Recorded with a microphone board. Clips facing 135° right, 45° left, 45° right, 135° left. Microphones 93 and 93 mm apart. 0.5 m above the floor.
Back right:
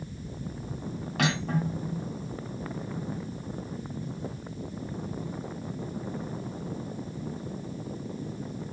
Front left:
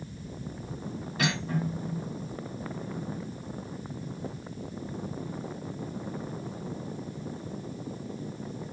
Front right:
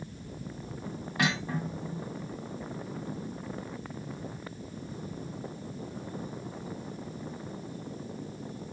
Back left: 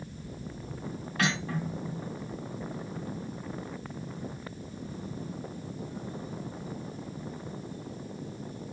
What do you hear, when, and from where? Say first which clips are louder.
1.2 s cutlery clinking: back right 2 dB, even; 120° right, 2.5 m